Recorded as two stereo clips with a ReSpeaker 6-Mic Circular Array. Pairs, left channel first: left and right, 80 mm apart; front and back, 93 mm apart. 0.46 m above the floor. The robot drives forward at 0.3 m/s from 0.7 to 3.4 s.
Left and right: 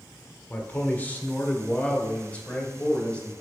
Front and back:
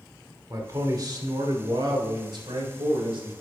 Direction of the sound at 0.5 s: 150° left.